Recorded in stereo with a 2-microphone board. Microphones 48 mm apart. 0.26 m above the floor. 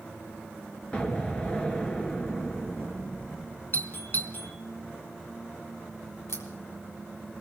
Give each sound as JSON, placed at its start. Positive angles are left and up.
{"t": 0.9, "sound": "an explosion", "side_deg": 20, "distance_m": 1.7}
{"t": 3.7, "sound": "a doorbell", "side_deg": 50, "distance_m": 3.0}
{"t": 6.3, "sound": "a crack", "side_deg": 75, "distance_m": 4.5}